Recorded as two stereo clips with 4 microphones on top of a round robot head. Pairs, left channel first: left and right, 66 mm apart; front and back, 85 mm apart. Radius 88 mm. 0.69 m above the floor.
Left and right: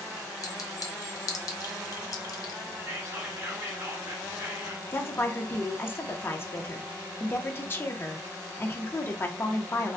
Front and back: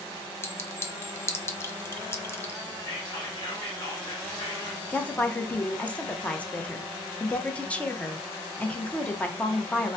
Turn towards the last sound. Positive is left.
turn(degrees=65)